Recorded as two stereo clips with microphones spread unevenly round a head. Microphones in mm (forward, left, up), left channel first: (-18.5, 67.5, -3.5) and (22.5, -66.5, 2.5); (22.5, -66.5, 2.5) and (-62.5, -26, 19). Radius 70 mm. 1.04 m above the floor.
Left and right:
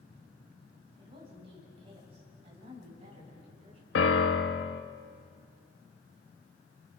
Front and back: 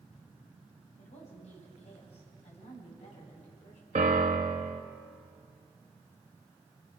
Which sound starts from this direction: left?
A piano, at 4.0 s.